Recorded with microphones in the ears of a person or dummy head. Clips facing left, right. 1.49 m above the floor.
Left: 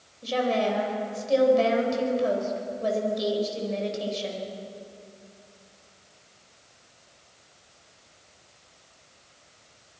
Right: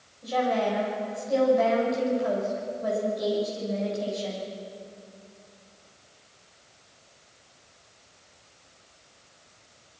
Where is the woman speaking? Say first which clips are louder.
Left 1 dB; 45° left (ahead or behind), 6.5 m.